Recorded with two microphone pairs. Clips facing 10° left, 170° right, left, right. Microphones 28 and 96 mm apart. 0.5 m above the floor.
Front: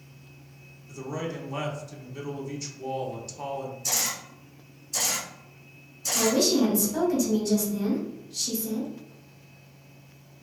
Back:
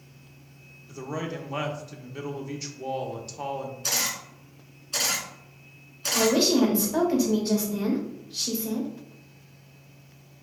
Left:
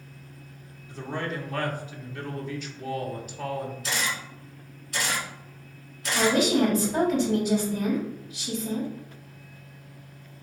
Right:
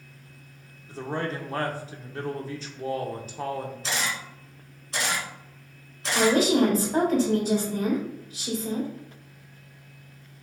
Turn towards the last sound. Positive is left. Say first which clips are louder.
# back 2 dB, right 2 dB
turn(degrees=-125)